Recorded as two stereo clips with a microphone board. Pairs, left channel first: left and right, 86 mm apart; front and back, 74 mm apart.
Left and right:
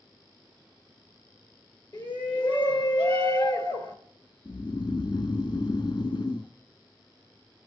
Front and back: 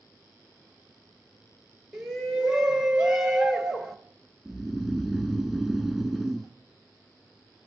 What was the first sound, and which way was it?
A shout, 100° left.